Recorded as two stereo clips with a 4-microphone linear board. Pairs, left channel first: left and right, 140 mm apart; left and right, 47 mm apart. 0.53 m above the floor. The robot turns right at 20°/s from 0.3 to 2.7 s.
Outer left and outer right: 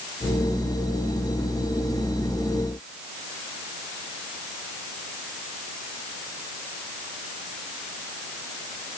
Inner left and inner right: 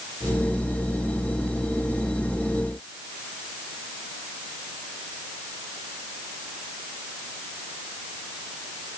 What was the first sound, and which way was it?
Only background noise.